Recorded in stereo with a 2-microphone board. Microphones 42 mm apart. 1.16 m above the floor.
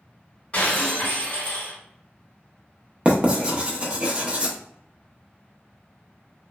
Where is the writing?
30° right (ahead or behind), 0.6 m.